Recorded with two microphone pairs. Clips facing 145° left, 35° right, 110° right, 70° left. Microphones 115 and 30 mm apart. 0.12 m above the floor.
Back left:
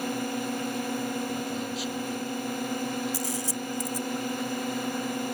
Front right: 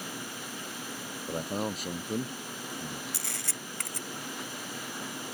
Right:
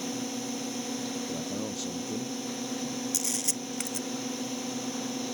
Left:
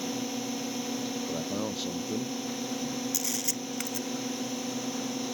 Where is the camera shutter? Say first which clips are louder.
Back left 10 dB, even; 15° right.